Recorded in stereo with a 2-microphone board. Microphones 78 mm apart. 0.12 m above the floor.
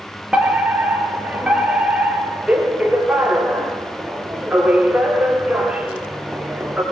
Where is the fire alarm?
15° right (ahead or behind), 4 m.